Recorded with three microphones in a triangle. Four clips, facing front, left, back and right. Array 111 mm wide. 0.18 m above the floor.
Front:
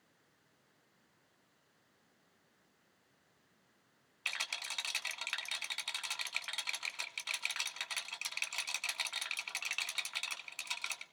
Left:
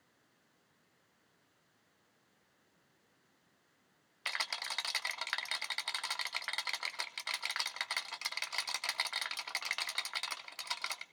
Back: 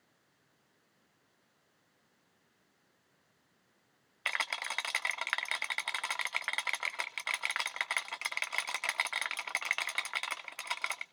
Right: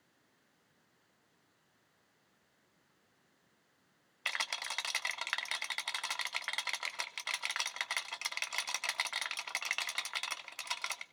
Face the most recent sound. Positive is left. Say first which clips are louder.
# right 1 dB, back 8 dB
turn(degrees=-175)